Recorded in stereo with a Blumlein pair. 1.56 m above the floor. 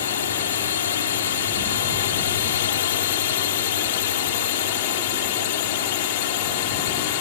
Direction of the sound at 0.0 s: 65° left.